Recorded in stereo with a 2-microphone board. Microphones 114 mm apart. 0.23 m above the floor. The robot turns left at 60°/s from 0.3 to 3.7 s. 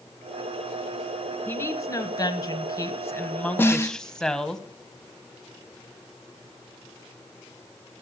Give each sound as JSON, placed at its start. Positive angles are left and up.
{"t": 1.5, "sound": "a woman speaking", "azimuth_deg": 145, "distance_m": 1.1}
{"t": 3.6, "sound": "a snare drum", "side_deg": 20, "distance_m": 0.8}